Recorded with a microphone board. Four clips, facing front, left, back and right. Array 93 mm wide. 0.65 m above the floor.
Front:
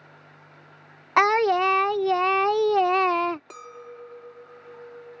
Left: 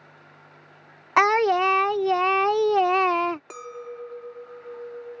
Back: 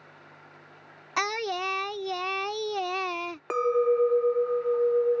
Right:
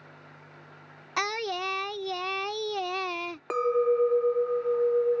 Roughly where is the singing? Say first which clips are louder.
Left 12 dB, front 10 dB; ahead left.